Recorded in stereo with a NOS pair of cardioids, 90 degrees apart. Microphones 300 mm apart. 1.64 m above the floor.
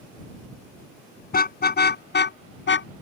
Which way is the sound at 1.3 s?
30° left.